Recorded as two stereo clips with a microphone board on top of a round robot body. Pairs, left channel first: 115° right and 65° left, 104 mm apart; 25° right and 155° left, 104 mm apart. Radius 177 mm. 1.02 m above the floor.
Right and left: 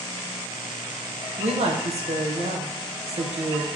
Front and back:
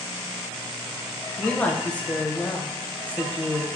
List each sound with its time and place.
1.4 s a woman speaking: 55° left, 0.5 m